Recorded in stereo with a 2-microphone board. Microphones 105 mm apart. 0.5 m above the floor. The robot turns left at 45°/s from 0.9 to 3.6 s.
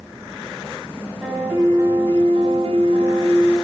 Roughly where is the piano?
Ahead.